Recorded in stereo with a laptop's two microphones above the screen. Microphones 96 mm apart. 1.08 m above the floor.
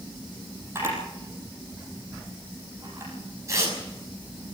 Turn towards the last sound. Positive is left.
turn(degrees=-30)  # may be behind; listen again after turning